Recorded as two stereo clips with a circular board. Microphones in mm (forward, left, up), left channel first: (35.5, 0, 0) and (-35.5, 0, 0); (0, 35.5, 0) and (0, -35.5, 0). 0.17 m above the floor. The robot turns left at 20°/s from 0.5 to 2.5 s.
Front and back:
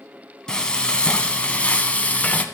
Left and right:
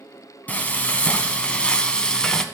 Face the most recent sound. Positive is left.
turn(degrees=20)